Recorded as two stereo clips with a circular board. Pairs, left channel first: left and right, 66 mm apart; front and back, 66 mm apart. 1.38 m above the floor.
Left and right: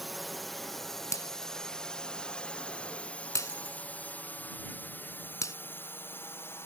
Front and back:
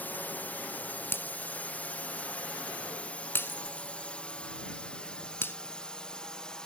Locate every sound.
0.0 s a drone: straight ahead; by 6.7 s 75° left
1.1 s breaking glass: 55° left